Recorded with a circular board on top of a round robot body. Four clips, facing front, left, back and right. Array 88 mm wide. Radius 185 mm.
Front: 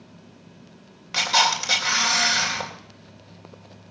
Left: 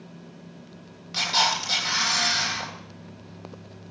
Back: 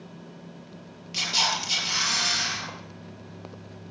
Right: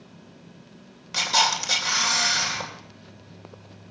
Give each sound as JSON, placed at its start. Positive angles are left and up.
{"t": 1.1, "sound": "a camera shutter", "azimuth_deg": -5, "distance_m": 3.0}